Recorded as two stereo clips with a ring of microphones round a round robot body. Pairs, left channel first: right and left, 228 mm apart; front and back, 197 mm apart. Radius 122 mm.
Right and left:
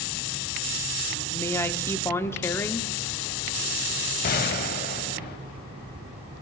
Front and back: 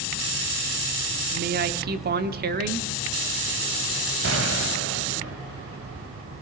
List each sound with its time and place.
1.3 s a woman speaking: 165° right, 0.9 m
4.2 s a gunshot: 140° right, 0.5 m